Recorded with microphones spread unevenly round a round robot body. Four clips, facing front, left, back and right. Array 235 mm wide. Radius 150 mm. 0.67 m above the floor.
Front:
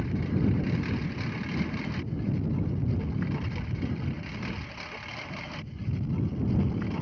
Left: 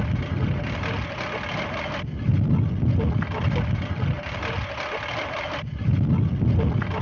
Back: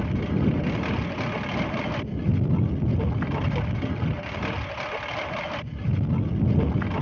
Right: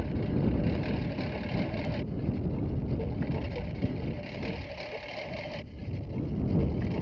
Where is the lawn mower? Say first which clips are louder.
Left 2 dB, back 3 dB; 125° left; by 7.0 s 110° left.